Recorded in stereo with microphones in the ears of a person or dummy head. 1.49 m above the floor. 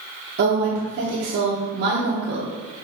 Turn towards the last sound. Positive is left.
turn(degrees=-55)  # may be behind; listen again after turning